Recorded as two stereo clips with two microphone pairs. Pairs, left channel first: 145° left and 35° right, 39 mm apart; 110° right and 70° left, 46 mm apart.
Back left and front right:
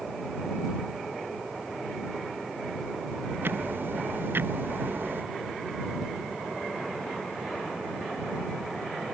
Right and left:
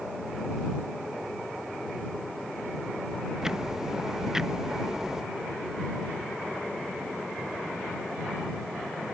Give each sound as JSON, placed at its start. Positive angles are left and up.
{"t": 3.4, "sound": "ticking", "azimuth_deg": -15}